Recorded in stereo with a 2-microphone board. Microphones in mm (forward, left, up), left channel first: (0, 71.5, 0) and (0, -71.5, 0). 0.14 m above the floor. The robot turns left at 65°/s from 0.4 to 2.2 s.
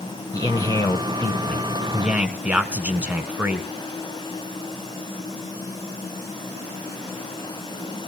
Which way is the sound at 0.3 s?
25° left (ahead or behind).